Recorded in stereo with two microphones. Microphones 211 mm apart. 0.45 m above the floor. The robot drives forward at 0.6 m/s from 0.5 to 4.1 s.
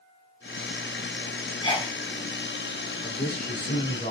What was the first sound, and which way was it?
A sneeze, 20° left (ahead or behind).